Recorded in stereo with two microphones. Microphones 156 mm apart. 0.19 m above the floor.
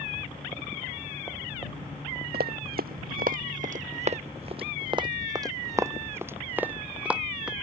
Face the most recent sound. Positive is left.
turn(degrees=-5)  # may be behind; listen again after turning